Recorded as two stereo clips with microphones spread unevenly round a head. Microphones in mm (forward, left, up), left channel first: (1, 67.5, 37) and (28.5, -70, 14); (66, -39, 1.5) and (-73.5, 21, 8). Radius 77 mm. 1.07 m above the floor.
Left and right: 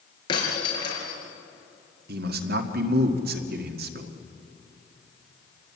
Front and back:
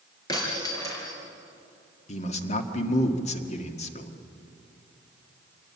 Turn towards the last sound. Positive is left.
turn(degrees=-70)